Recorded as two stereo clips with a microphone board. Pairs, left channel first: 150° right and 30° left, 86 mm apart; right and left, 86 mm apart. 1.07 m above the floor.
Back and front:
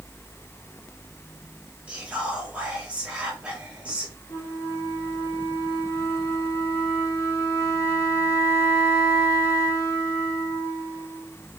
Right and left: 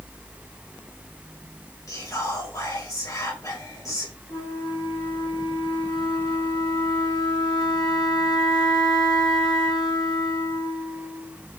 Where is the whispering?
45° right, 2.5 m.